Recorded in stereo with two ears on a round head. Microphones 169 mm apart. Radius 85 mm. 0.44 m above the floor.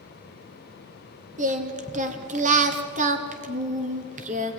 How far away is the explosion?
No explosion in this recording.